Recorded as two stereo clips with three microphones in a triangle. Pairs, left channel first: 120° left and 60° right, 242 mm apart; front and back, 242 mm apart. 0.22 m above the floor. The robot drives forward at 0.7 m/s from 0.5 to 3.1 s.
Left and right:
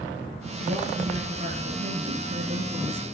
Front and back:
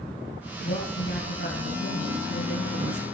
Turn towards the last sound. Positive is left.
turn(degrees=-10)